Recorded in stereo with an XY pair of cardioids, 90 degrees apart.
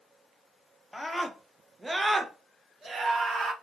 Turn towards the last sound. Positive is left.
turn(degrees=-55)